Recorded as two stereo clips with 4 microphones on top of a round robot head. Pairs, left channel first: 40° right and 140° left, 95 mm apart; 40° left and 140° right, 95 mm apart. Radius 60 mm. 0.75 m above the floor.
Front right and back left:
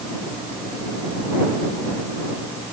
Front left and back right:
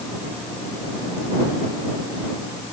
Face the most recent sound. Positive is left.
No sound to turn to.